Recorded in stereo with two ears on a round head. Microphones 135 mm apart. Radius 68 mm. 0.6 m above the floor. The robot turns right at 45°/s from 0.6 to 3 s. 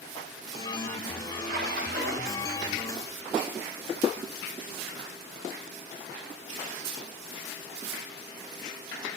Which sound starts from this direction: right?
A splash, at 1.4 s.